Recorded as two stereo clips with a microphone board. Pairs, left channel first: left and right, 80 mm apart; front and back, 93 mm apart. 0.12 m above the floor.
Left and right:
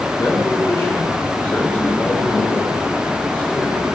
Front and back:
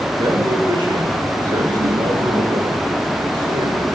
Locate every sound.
0.2 s a man speaking: 145° left, 8.5 m; by 3.9 s 160° left, 8 m